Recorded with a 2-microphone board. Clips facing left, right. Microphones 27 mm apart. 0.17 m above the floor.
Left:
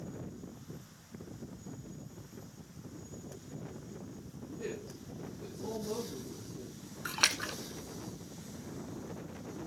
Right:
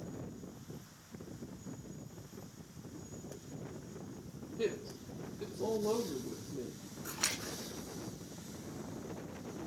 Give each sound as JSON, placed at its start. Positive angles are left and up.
{"t": 4.6, "sound": "a woman speaking", "side_deg": -75, "distance_m": 4.0}
{"t": 7.0, "sound": "a splash", "side_deg": 50, "distance_m": 1.1}